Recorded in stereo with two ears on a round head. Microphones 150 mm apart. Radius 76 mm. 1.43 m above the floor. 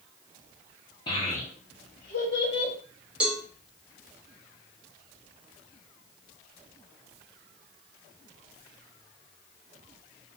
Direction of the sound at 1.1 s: 30° left (ahead or behind).